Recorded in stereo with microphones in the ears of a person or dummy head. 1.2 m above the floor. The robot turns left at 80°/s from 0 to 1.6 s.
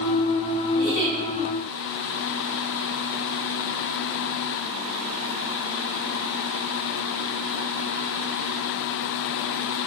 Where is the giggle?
130° left, 1.6 m; by 1.1 s 95° left, 1.6 m.